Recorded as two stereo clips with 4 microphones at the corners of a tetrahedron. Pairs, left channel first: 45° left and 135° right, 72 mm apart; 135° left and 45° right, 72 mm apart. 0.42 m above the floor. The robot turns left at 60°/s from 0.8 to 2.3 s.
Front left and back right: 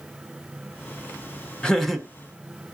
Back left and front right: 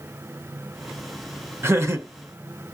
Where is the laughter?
25° right, 0.9 m; by 2.1 s 50° right, 0.9 m.